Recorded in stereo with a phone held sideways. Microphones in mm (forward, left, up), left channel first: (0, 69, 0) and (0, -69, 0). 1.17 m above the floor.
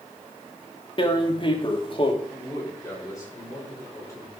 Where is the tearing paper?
35° left (ahead or behind), 1.4 m.